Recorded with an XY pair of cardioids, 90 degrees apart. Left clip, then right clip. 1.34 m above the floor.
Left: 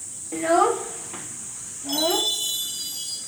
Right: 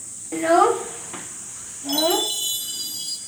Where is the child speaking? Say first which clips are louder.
Right 3 dB; 25° right, 0.7 m.